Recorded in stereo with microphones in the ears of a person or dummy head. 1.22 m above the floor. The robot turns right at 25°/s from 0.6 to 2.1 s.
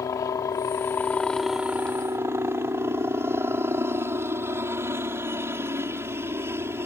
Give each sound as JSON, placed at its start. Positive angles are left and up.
{"t": 0.0, "sound": "a helicopter", "azimuth_deg": 160}